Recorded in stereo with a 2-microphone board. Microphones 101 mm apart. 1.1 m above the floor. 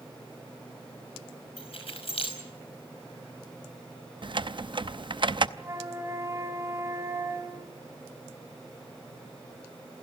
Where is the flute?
25° right (ahead or behind), 2.5 m.